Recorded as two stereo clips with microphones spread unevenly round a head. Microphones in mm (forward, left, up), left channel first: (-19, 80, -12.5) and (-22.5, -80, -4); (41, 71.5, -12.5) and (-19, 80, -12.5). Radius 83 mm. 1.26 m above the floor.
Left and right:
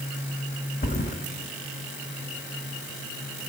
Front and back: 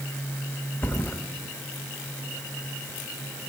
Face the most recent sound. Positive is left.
turn(degrees=55)